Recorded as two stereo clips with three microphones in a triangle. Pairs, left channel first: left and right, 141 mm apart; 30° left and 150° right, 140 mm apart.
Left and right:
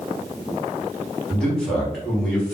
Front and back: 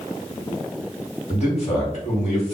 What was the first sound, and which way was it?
A man speaking, 5° left.